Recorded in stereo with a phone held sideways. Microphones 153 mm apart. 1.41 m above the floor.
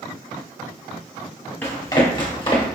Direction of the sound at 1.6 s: 15° left (ahead or behind).